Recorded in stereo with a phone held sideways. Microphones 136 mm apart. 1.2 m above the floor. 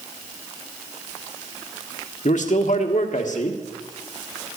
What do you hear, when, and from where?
2.2 s a man speaking: 70° left (ahead or behind), 1.5 m